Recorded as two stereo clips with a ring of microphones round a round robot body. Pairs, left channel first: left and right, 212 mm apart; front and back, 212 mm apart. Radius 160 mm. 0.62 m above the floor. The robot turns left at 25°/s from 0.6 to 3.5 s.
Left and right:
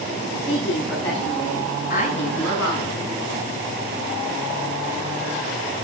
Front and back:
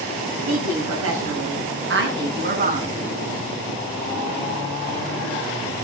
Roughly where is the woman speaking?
Behind.